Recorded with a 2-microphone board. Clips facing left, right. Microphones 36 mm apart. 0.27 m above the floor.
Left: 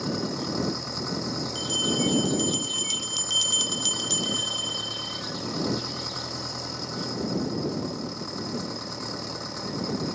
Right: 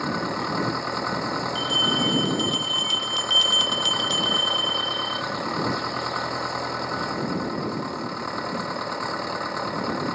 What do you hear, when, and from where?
0.0 s an engine running: 40° right (ahead or behind)
1.6 s a bell: 30° right (ahead or behind)